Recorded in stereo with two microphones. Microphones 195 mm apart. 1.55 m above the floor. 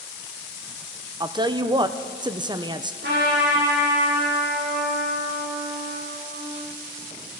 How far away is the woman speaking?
About 0.6 m.